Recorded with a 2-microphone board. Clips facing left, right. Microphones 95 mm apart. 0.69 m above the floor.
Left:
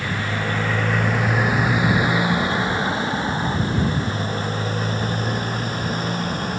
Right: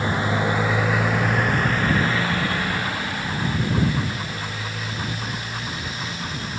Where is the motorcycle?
25° right (ahead or behind); by 6.6 s 45° left (ahead or behind).